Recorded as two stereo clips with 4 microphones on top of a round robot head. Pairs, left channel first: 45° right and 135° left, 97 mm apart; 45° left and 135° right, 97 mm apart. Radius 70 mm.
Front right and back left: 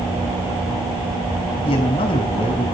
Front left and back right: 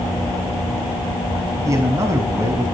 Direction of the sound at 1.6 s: 75° right.